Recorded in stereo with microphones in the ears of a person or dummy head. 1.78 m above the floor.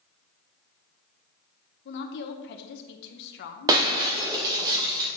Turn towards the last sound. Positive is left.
turn(degrees=-20)  # may be behind; listen again after turning